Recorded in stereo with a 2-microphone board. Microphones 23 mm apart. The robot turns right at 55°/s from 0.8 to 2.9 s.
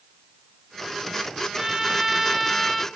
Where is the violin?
25° right (ahead or behind), 1.1 m; by 2.9 s 10° left (ahead or behind), 1.1 m.